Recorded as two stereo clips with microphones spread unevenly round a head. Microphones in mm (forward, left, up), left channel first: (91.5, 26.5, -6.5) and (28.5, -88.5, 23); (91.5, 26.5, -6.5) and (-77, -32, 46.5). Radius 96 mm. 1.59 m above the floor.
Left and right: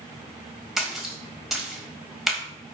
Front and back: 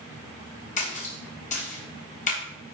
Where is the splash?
35° right, 4 m.